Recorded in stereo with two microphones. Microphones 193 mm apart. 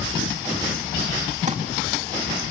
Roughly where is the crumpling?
Right.